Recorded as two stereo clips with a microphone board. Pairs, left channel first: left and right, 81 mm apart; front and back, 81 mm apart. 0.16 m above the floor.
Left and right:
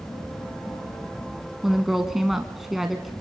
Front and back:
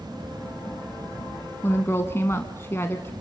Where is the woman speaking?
5° right, 1.1 m.